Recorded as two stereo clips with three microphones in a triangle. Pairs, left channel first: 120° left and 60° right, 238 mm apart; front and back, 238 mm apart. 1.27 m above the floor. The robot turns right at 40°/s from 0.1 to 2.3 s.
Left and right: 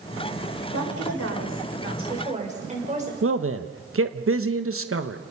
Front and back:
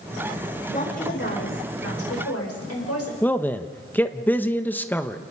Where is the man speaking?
85° right, 1.1 m.